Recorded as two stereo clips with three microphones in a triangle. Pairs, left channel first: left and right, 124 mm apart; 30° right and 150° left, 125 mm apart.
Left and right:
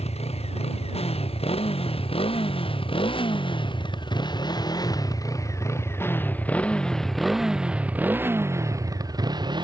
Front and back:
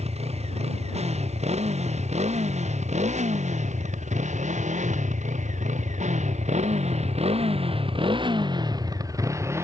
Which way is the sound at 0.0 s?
120° left.